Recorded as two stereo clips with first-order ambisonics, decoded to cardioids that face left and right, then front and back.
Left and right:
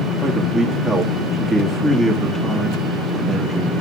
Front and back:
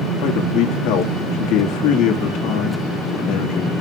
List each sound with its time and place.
0.2 s a man speaking: 10° right, 1.7 m